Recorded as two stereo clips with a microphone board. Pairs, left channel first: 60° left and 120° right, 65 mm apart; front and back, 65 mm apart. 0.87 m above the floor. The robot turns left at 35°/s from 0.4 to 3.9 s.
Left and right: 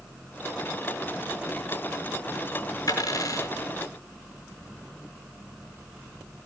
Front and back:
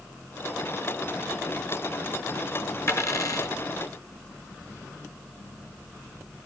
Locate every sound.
2.9 s a dropped coin: 45° left, 3.5 m; by 3.5 s 25° left, 3.5 m